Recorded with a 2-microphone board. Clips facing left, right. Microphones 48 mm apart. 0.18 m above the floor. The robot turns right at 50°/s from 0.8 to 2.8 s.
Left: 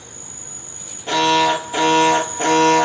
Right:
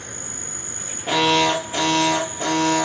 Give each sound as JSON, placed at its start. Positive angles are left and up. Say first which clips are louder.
{"t": 0.0, "sound": "an insect", "louder": "right 5 dB", "azimuth_deg": -90, "distance_m": 1.0}
{"t": 1.1, "sound": "an alarm", "louder": "left 2 dB", "azimuth_deg": -10, "distance_m": 2.5}